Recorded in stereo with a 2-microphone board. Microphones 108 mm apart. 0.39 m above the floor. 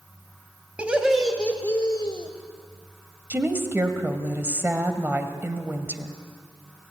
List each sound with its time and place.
0.8 s laughter: 15° right (ahead or behind), 2.0 m; by 2.3 s 55° left (ahead or behind), 1.4 m
3.3 s a woman speaking: 20° right (ahead or behind), 2 m